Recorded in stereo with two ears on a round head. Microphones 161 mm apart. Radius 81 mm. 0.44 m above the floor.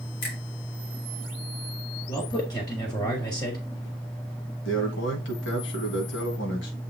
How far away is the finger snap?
About 3.5 m.